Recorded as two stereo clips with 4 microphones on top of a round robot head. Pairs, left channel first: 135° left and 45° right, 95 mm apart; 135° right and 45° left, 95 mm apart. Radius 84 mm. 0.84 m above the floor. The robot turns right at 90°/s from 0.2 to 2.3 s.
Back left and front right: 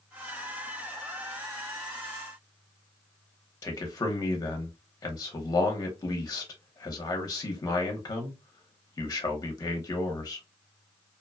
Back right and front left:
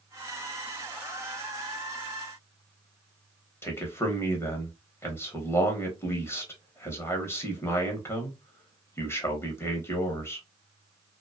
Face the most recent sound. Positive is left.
turn(degrees=170)